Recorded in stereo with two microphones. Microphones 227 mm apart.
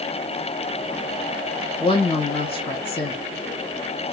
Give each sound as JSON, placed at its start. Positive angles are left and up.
{"t": 1.8, "sound": "a woman speaking", "side_deg": 20, "distance_m": 0.8}